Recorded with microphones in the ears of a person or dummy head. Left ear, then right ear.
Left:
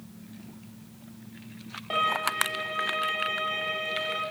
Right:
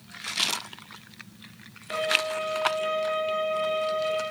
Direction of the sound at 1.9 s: 65° left (ahead or behind).